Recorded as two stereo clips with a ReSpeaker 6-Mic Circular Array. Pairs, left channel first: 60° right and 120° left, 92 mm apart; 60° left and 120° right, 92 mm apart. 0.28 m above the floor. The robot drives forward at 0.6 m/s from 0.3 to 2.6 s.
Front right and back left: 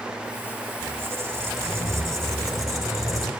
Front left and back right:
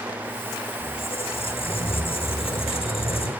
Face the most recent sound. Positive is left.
turn(degrees=70)